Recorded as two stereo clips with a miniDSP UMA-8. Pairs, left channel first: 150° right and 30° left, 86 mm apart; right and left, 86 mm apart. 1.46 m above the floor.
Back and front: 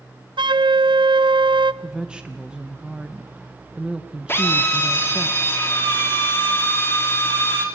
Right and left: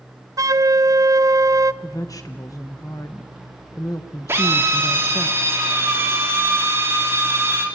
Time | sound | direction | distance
0.4 | a flute | 45° left | 0.6 m
1.8 | a woman speaking | 45° right | 1.1 m
4.3 | a drill | 150° left | 3 m